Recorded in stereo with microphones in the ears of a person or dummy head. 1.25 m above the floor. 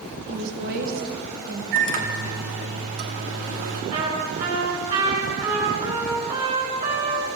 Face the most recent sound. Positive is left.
turn(degrees=-35)  # may be behind; listen again after turning